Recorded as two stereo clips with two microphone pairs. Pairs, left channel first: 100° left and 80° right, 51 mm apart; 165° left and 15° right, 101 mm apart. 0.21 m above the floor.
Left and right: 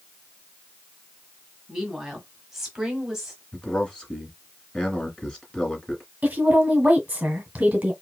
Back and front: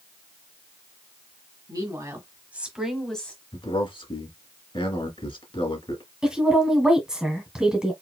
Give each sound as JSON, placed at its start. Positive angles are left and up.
{"t": 1.7, "sound": "a woman speaking", "azimuth_deg": 5, "distance_m": 1.6}
{"t": 3.5, "sound": "a man speaking", "azimuth_deg": 170, "distance_m": 2.0}
{"t": 6.2, "sound": "a woman speaking", "azimuth_deg": -85, "distance_m": 1.5}